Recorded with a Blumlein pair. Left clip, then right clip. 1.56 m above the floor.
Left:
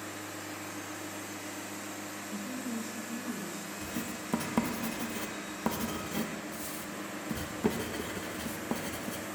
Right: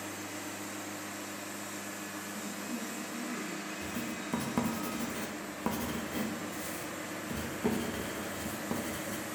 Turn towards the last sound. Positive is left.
turn(degrees=10)